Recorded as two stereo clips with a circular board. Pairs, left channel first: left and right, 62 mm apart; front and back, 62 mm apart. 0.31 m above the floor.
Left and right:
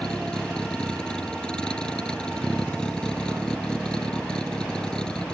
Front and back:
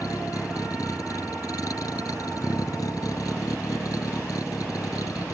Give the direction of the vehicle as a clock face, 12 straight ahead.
12 o'clock.